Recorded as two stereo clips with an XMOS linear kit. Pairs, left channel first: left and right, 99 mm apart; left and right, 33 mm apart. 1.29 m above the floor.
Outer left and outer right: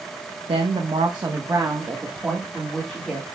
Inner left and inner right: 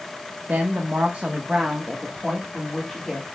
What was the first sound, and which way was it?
A woman speaking, 70° right (ahead or behind).